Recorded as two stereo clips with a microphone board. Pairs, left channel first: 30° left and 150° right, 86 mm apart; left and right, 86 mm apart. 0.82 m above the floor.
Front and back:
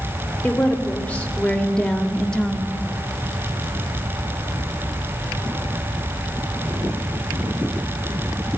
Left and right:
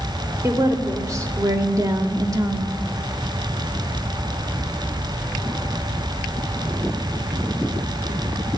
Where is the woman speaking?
40° right, 2.5 m; by 2.8 s 55° right, 1.0 m.